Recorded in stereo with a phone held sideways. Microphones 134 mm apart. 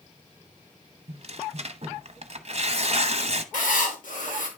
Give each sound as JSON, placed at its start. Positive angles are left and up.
{"t": 1.1, "sound": "tearing paper", "side_deg": -50, "distance_m": 0.9}
{"t": 3.5, "sound": "writing", "side_deg": 75, "distance_m": 3.0}